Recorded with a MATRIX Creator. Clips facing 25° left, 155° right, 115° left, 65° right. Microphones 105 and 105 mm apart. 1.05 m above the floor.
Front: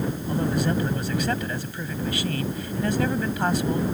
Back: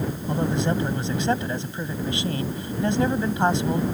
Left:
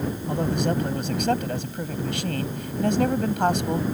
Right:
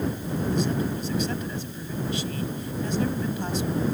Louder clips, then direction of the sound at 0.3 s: Back 1 dB, left 3 dB; 135° left.